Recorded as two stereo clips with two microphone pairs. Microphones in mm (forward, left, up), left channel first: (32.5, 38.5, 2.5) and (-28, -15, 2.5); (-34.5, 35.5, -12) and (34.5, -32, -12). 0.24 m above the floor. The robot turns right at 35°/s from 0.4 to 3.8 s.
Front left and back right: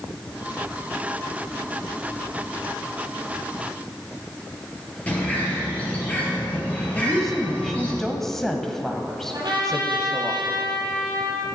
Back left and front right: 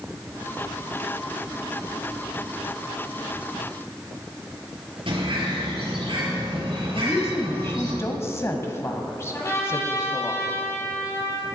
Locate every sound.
5.1 s a bird: 30° right, 4.5 m
6.9 s a woman speaking: 120° left, 1.0 m
9.3 s a trumpet: 170° right, 3.5 m